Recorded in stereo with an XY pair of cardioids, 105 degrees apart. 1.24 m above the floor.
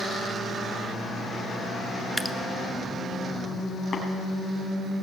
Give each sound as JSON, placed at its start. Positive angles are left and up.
{"t": 2.2, "sound": "dripping", "azimuth_deg": -5, "distance_m": 1.2}
{"t": 3.9, "sound": "tapping", "azimuth_deg": 35, "distance_m": 7.0}